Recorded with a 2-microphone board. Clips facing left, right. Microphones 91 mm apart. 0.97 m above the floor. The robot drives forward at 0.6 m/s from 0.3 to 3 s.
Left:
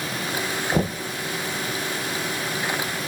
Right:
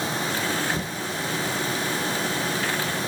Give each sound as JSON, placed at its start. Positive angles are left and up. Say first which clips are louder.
{"t": 0.7, "sound": "knocking", "louder": "left 5 dB", "side_deg": 45, "distance_m": 0.6}